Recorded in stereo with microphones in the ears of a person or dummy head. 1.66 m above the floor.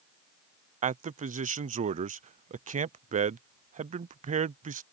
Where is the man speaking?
35° right (ahead or behind).